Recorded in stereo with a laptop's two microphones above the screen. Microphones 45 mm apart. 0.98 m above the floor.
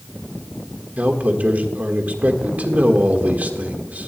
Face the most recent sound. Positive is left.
turn(degrees=-40)  # may be behind; listen again after turning